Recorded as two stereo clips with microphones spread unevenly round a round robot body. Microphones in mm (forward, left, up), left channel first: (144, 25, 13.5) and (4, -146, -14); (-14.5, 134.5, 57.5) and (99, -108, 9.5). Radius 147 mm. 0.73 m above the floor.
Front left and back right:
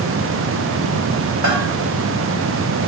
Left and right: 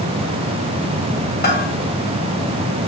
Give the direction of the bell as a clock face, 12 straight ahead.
6 o'clock.